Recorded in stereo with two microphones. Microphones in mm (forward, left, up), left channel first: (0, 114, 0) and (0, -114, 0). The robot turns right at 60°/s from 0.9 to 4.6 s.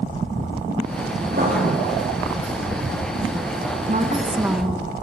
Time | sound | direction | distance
1.3 | writing | 45° right (ahead or behind) | 7.5 m
3.9 | a woman speaking | 45° right | 1.9 m